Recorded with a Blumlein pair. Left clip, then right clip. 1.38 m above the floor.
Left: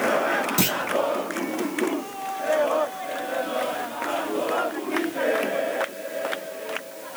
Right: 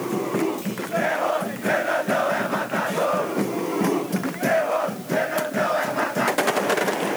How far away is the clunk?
About 1.1 m.